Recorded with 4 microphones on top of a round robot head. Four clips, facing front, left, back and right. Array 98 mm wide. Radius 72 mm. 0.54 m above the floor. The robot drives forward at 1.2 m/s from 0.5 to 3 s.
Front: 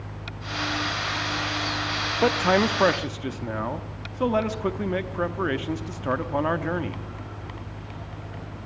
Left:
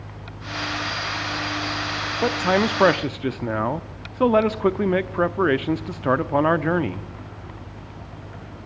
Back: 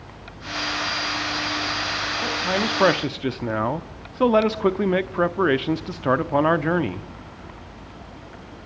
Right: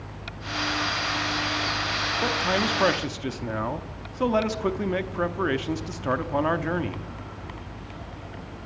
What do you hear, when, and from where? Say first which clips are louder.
2.2 s a man speaking: left 6 dB, front 6 dB; 30° left, 0.9 m; by 7.1 s 130° left, 0.8 m